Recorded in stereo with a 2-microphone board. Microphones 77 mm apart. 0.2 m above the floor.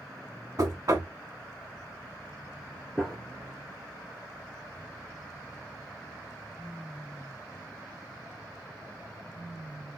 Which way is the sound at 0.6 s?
50° right (ahead or behind).